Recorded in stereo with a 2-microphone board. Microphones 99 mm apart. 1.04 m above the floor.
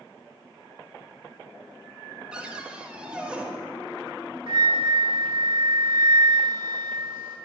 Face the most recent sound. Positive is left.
turn(degrees=-70)  # may be behind; listen again after turning